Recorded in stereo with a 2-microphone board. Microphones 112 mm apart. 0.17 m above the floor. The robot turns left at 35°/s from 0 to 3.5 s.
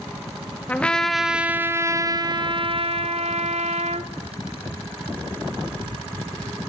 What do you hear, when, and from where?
0.7 s a trumpet: 15° left, 0.5 m; by 4.1 s 85° right, 0.5 m